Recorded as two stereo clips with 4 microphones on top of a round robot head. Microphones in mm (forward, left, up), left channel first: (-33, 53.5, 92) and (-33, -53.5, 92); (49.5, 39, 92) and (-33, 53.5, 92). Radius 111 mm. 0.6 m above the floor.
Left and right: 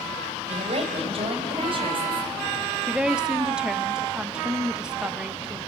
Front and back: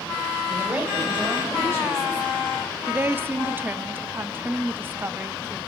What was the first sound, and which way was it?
A woman speaking, 110° right.